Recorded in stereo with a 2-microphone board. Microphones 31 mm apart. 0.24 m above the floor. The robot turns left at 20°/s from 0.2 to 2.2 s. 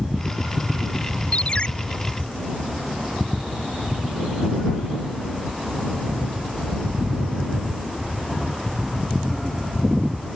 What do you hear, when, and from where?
1.3 s a ringtone: 40° left (ahead or behind); by 1.7 s 35° left (ahead or behind)